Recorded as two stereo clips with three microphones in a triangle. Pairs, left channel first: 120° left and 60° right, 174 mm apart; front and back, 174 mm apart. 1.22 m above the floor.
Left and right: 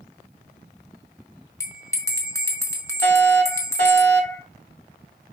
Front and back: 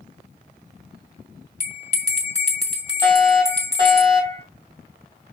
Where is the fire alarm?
120° left, 4 m.